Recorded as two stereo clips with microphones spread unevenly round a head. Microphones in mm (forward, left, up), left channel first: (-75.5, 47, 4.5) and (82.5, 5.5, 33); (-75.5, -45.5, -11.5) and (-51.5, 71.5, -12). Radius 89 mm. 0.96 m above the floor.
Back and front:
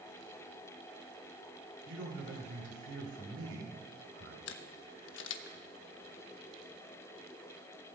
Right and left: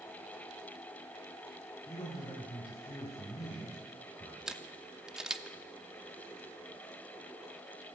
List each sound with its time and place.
1.9 s a man speaking: 25° right, 3.5 m
4.5 s a camera shutter: 165° left, 0.6 m